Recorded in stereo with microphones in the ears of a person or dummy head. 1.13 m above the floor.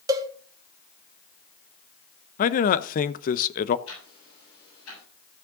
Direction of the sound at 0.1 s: 15° right (ahead or behind).